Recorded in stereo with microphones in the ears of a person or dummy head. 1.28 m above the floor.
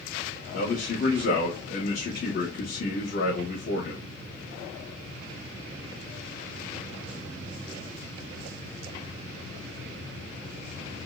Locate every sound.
0.5 s a man speaking: 55° left (ahead or behind), 1.0 m